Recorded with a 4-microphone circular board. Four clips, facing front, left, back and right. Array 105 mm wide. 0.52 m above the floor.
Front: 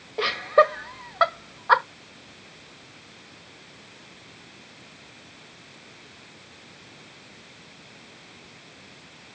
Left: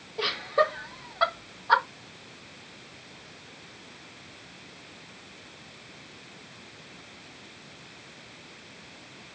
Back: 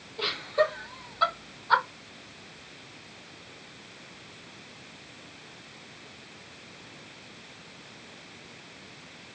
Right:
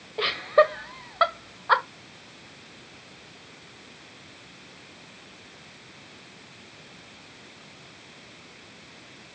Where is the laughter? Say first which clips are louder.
Right 5 dB, front 7 dB; 25° right, 2.0 m.